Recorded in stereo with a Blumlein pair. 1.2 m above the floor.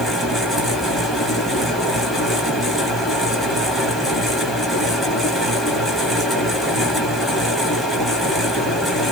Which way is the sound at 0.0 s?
5° right.